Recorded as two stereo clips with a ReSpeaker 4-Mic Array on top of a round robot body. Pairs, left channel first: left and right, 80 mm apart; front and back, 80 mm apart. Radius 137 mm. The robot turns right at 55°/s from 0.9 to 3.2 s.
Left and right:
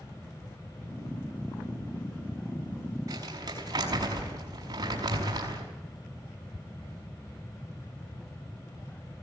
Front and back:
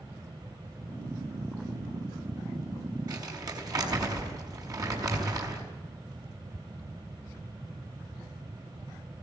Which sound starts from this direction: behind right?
Crumpling, at 3.1 s.